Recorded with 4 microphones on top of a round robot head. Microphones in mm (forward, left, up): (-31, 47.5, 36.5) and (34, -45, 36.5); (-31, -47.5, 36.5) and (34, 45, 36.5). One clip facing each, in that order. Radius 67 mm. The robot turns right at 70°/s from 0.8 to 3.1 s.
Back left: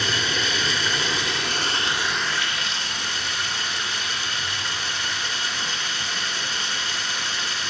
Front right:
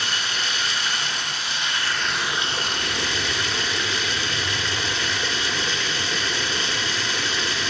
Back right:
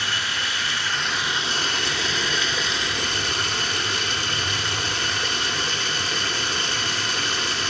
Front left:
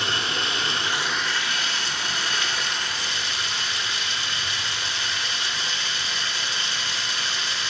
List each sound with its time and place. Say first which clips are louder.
0.0 s running water: back left 3 dB, front left 1 dB; 125° left, 1.4 m; by 7.7 s 75° right, 1.4 m